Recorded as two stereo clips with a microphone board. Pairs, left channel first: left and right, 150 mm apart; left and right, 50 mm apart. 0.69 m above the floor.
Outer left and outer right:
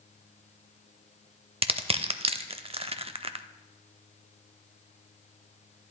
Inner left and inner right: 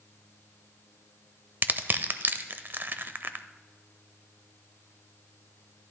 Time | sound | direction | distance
1.6 | crushing | 45° right (ahead or behind) | 0.5 m